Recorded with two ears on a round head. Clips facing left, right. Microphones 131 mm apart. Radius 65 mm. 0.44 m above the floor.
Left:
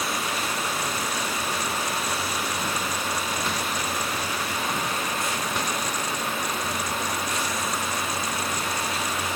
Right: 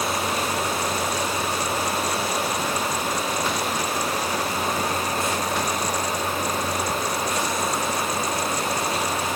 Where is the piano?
No piano in this recording.